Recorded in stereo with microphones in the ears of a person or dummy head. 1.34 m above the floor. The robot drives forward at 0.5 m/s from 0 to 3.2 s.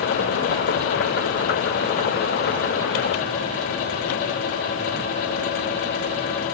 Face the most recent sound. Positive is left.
No sound to turn to.